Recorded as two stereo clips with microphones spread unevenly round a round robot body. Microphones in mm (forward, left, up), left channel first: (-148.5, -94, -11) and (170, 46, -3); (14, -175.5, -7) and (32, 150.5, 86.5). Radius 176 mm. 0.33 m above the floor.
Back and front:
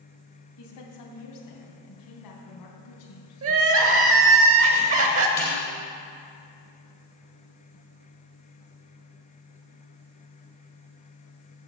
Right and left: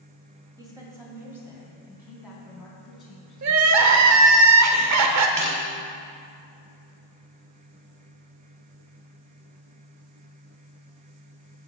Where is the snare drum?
120° left, 4.5 m.